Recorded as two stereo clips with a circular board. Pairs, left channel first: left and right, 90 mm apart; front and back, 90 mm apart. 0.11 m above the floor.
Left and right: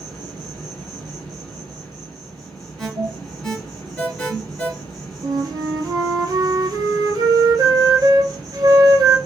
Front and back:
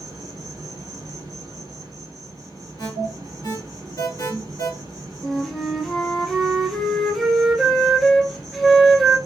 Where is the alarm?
10° left, 1.3 m.